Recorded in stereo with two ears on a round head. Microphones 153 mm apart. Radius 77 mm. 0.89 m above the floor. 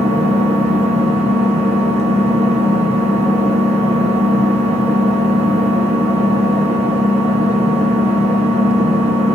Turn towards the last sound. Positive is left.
turn(degrees=-40)  # may be behind; listen again after turning